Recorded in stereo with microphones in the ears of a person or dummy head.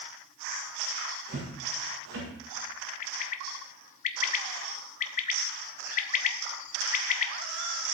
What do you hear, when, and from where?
1.3 s footsteps: 60° right (ahead or behind), 6.5 m; by 2.3 s 70° right (ahead or behind), 6 m
3.0 s a bird: 45° left (ahead or behind), 0.8 m